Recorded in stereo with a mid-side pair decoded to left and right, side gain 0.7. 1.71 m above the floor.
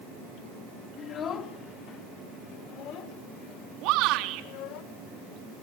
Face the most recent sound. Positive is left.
turn(degrees=-65)